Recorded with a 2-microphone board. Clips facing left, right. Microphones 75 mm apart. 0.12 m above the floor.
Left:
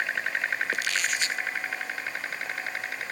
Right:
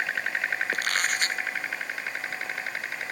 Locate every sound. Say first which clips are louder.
0.7 s a squeak: right 1 dB; 45° right (ahead or behind)